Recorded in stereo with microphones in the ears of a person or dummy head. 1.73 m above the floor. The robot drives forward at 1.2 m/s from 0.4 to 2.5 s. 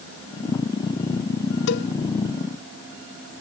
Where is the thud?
No thud in this recording.